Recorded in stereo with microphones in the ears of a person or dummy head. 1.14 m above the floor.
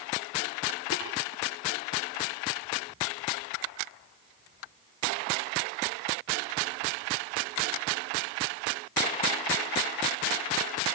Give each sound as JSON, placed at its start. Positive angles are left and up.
{"t": 0.9, "sound": "tapping", "side_deg": 75, "distance_m": 9.0}